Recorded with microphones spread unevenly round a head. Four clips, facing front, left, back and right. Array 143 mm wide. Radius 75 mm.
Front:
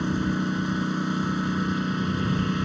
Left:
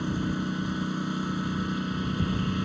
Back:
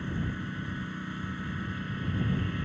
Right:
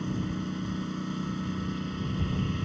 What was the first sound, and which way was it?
A lawn mower, 15° left.